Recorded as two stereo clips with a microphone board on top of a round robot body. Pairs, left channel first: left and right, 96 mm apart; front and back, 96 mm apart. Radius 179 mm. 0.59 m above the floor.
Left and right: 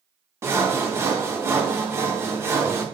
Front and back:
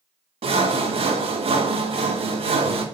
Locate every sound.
0.4 s sawing: 155° right, 0.6 m